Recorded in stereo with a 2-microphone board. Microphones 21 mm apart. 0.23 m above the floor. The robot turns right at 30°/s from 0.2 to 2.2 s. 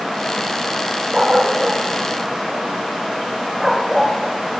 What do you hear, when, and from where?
1.1 s a dog barking: 45° right (ahead or behind), 6 m; by 4.2 s 15° right (ahead or behind), 6 m